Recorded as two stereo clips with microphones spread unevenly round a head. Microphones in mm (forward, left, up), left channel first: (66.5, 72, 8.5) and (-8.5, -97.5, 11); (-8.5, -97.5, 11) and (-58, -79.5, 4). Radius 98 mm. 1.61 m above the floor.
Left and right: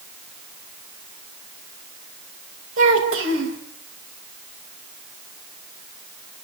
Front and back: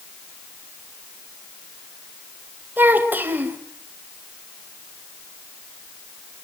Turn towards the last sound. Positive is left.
turn(degrees=-145)